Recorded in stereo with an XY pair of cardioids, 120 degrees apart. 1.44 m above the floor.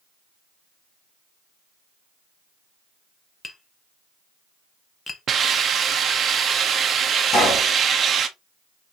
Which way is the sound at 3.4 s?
25° left.